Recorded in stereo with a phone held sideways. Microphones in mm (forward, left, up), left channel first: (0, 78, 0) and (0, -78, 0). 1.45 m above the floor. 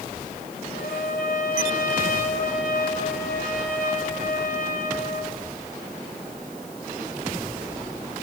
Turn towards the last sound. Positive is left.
turn(degrees=70)  # may be behind; listen again after turning